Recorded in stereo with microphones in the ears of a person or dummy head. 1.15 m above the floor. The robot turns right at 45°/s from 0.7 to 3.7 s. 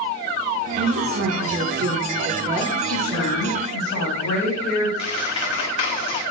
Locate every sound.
0.8 s a woman speaking: 120° right, 0.9 m; by 3.3 s 5° right, 0.9 m
2.9 s a woman speaking: 75° left, 1.0 m; by 4.9 s 110° left, 1.0 m
5.0 s a squeak: 35° left (ahead or behind), 1.0 m